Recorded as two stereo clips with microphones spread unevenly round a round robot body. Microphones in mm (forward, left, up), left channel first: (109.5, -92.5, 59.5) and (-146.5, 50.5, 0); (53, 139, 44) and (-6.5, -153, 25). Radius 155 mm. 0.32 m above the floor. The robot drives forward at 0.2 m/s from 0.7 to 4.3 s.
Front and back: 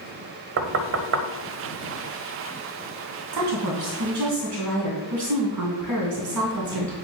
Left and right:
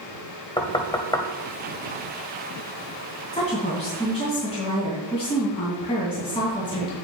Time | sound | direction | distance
0.6 | knocking | 155° left | 0.8 m
3.3 | a woman speaking | 150° left | 2 m